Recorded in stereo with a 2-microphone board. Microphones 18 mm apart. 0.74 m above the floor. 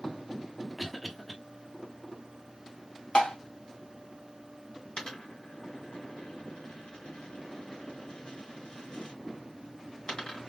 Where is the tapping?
80° left, 1.0 m.